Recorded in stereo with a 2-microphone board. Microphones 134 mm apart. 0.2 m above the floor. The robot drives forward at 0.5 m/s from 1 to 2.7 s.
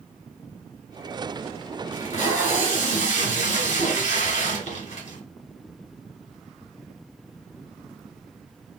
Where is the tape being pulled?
65° left (ahead or behind), 1.4 m.